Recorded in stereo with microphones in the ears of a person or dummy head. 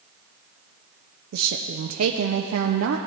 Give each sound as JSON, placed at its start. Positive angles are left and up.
{"t": 1.3, "sound": "a woman speaking", "side_deg": -75, "distance_m": 0.6}